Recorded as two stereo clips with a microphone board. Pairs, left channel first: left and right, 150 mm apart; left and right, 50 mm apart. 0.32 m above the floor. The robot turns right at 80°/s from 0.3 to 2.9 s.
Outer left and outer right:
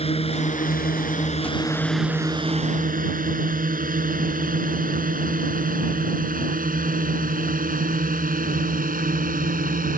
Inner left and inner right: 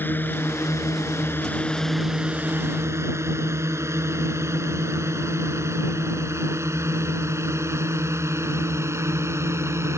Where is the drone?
40° left (ahead or behind); by 10.0 s 70° right (ahead or behind).